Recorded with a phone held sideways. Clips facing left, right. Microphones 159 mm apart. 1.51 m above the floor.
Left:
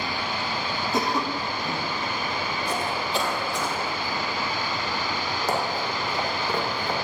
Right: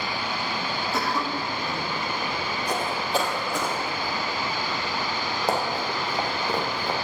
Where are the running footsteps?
35° right (ahead or behind), 2.5 m; by 7.0 s 10° right (ahead or behind), 2.5 m.